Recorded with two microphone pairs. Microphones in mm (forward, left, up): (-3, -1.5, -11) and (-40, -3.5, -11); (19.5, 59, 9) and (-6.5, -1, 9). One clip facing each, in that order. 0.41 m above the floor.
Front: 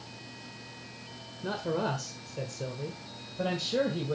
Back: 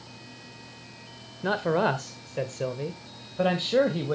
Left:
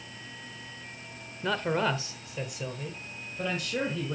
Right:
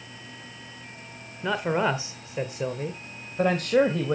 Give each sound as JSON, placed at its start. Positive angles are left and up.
{"t": 1.4, "sound": "a man speaking", "azimuth_deg": 165, "distance_m": 1.2}